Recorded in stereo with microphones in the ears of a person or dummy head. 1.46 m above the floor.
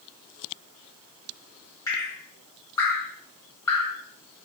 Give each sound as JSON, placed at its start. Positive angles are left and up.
{"t": 1.9, "sound": "dripping", "side_deg": 20, "distance_m": 0.8}